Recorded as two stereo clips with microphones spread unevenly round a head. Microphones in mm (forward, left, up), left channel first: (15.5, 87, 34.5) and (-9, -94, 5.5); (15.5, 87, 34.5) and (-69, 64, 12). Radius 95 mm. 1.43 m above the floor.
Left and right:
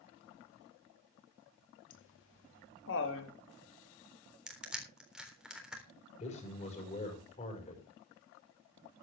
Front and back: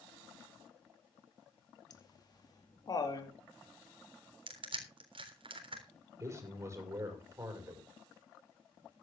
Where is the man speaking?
140° left, 6 m.